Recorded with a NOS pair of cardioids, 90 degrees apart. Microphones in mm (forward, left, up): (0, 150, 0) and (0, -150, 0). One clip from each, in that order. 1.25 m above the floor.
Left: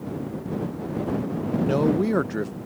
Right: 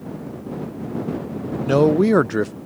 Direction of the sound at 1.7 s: 35° right.